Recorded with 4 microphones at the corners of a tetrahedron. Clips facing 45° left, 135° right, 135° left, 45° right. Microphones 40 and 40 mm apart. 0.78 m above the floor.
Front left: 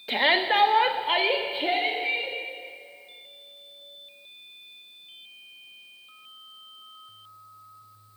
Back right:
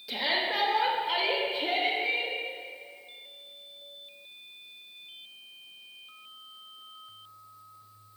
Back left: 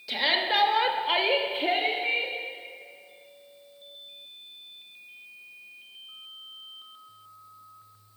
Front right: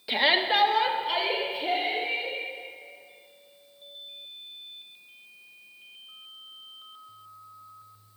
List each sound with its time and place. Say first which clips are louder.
0.1 s a shout: front left 7 dB, front right 2 dB; 15° left, 1.3 m; by 2.4 s 120° left, 2 m